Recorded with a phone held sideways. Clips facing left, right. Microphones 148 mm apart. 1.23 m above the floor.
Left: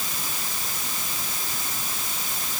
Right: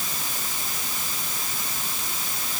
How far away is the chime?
No chime in this recording.